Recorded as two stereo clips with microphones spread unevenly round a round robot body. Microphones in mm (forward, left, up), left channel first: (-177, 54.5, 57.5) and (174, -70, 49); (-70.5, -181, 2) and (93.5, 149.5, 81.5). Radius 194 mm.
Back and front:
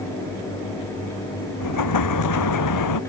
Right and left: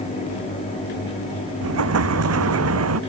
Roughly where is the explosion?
Behind left.